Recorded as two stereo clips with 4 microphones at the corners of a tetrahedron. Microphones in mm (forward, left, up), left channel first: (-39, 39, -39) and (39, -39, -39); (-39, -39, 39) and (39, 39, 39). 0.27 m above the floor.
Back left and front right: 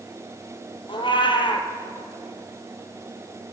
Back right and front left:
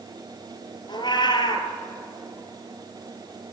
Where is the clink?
No clink in this recording.